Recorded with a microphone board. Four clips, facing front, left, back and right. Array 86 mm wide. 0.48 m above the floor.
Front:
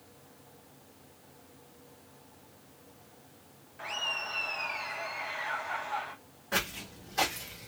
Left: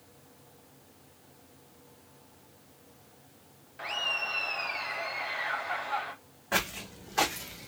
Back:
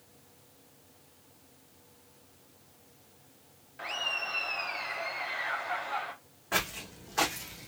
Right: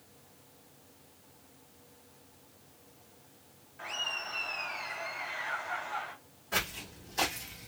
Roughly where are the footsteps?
Behind left.